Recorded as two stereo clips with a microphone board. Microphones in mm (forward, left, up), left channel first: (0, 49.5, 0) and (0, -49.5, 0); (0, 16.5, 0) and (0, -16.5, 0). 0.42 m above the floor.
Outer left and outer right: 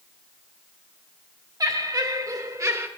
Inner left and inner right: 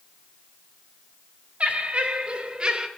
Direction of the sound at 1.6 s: 40° right (ahead or behind).